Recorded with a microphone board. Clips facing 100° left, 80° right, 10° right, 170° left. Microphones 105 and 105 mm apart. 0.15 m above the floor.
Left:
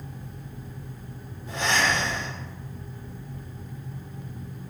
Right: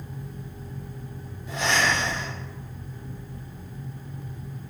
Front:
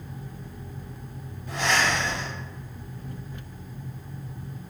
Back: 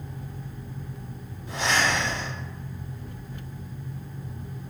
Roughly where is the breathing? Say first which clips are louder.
Even, even; behind left.